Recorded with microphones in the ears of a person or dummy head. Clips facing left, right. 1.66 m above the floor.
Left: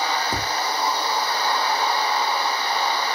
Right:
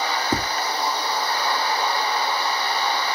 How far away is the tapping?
About 0.6 m.